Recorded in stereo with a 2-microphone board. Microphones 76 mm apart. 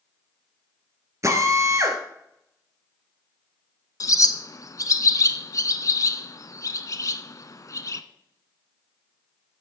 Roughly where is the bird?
Left.